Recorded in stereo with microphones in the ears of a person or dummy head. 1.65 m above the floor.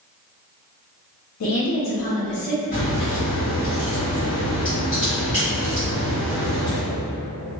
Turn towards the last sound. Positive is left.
turn(degrees=30)  # may be behind; listen again after turning